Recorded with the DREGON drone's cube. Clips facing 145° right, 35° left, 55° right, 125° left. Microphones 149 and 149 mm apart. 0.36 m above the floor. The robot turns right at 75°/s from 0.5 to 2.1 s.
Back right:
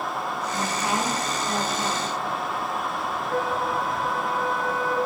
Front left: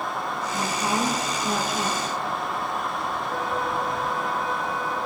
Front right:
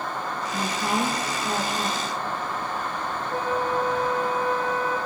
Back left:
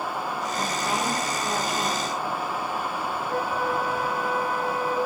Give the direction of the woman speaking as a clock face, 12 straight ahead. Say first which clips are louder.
Front left 1 dB, front right 3 dB; 2 o'clock.